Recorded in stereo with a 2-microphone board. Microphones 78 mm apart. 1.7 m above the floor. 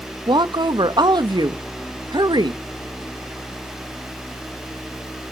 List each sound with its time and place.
0.3 s a woman speaking: 70° right (ahead or behind), 0.8 m